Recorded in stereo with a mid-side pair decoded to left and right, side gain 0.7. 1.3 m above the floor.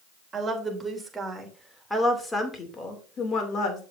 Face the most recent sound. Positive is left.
turn(degrees=45)